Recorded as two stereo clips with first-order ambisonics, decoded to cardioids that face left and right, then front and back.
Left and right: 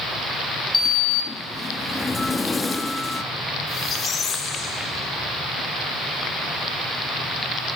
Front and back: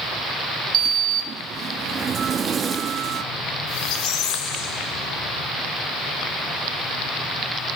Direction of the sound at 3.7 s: 25° left.